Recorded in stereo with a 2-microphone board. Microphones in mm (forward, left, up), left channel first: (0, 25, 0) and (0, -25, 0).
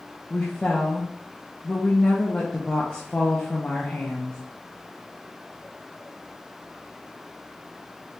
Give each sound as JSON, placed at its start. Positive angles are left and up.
{"t": 0.3, "sound": "a woman speaking", "side_deg": 20, "distance_m": 0.8}